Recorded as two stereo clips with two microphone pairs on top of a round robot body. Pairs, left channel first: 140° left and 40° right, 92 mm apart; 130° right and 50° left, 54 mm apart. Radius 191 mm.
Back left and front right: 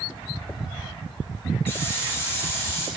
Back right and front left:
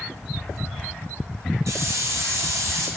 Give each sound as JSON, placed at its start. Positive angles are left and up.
{"t": 1.7, "sound": "a hiss", "azimuth_deg": 75, "distance_m": 4.5}